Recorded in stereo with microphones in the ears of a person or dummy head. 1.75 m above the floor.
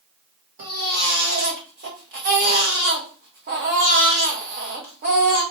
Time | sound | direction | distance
0.6 | a baby crying | 50° right (ahead or behind) | 0.9 m